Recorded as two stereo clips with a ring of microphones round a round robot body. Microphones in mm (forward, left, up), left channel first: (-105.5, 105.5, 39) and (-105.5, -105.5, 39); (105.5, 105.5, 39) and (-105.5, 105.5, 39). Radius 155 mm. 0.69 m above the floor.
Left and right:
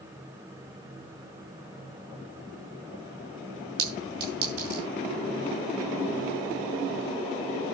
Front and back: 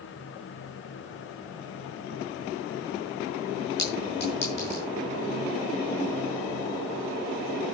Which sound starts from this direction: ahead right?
A clink, at 3.8 s.